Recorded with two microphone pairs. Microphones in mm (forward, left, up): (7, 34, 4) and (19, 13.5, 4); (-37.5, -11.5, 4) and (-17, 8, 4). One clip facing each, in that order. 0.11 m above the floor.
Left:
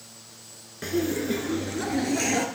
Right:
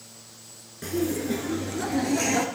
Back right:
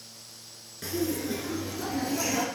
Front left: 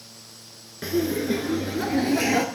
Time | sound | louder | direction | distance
0.8 | laughter | left 1 dB, front left 6 dB | 80° left | 1.3 m